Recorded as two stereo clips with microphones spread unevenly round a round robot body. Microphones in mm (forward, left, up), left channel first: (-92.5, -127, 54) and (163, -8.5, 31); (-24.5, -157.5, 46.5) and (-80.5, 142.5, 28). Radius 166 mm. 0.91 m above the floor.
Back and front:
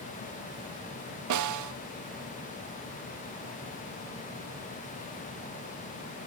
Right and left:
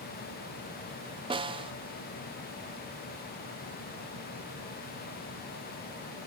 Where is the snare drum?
30° left.